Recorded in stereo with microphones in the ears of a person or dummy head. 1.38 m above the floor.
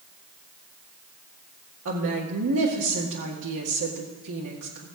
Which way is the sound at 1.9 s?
75° right (ahead or behind).